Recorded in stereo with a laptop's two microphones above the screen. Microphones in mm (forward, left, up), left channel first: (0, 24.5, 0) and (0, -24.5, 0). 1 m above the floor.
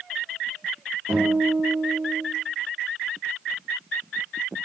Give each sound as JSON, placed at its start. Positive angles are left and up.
{"t": 1.1, "sound": "a guitar", "side_deg": -50, "distance_m": 1.1}